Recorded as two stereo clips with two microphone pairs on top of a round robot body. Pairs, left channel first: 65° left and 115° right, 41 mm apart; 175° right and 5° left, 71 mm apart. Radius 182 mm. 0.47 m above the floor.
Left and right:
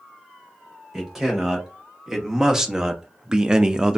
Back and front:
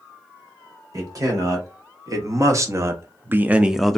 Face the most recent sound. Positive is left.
turn(degrees=-140)